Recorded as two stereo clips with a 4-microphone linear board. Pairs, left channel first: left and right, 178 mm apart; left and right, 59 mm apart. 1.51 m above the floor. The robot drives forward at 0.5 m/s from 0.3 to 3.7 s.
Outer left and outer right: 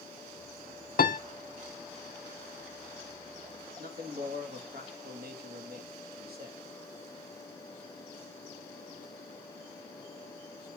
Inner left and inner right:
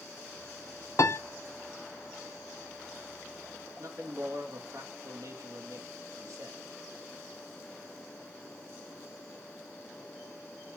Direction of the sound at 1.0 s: 55° left (ahead or behind).